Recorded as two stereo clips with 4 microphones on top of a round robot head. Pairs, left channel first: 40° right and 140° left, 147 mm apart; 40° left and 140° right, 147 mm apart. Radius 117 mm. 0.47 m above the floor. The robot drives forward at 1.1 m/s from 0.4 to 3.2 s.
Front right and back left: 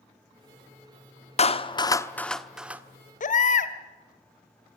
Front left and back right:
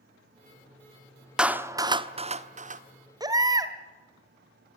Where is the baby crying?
75° right, 1.7 m.